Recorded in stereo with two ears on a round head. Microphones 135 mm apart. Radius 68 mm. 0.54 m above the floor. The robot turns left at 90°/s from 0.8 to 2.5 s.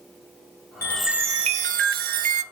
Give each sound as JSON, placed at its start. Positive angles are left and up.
{"t": 0.8, "sound": "a chime", "azimuth_deg": 20, "distance_m": 0.6}